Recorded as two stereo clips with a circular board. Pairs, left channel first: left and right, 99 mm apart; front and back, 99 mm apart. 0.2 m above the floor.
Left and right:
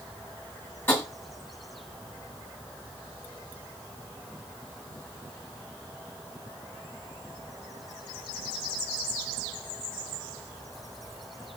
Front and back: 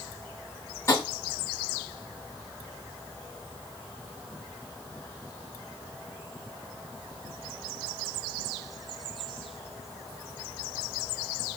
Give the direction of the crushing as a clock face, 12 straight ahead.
I don't hear crushing.